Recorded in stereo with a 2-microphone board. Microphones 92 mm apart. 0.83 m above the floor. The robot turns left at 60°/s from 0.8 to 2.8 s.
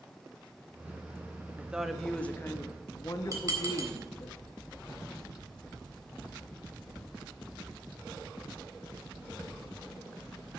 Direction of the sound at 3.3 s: 35° right (ahead or behind).